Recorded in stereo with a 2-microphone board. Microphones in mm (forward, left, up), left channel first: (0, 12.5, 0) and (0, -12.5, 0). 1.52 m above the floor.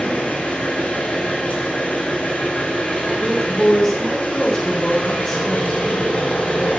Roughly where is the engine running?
Left.